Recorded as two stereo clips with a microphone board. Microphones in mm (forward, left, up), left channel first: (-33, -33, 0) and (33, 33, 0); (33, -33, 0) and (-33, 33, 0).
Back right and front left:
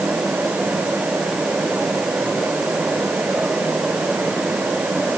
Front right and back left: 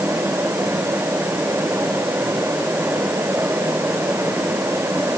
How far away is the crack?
I don't hear a crack.